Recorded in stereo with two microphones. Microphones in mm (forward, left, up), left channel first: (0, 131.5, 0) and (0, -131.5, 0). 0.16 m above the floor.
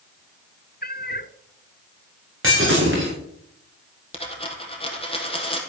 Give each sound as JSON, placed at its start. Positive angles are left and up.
{"t": 0.8, "sound": "a cat meowing", "side_deg": 35, "distance_m": 0.6}
{"t": 2.4, "sound": "breaking glass", "side_deg": -45, "distance_m": 7.0}
{"t": 4.1, "sound": "a dropped coin", "side_deg": 20, "distance_m": 3.0}